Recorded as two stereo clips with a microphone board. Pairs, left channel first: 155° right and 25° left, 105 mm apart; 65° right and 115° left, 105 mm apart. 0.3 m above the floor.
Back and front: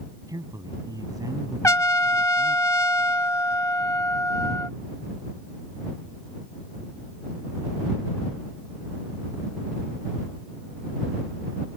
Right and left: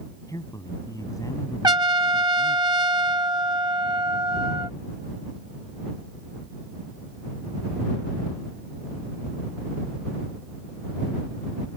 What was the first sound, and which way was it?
A man speaking, 20° right.